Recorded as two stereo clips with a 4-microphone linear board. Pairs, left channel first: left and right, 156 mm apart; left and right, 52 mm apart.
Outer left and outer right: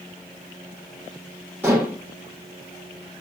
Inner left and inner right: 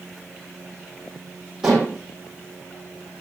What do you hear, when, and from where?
1.6 s dishes clattering: 15° right (ahead or behind), 8 m